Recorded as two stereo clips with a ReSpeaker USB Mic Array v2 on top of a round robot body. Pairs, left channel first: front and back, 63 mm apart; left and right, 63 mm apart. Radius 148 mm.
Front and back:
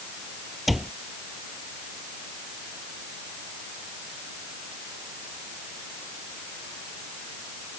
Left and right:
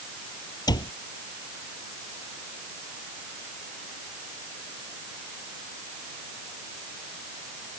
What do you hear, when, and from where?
0.7 s a cupboard door: 90° left